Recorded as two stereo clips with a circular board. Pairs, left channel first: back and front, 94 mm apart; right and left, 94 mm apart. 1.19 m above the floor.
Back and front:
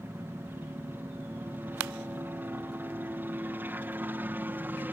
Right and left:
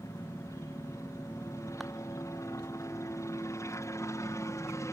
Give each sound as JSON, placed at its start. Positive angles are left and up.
{"t": 0.0, "sound": "a helicopter", "azimuth_deg": -55}